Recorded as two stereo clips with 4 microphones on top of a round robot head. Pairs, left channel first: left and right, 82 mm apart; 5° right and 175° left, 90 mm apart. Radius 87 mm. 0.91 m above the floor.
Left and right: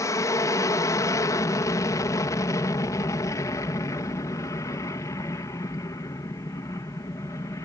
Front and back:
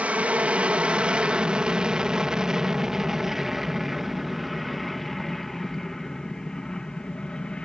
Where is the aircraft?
110° left; by 7.7 s 70° left.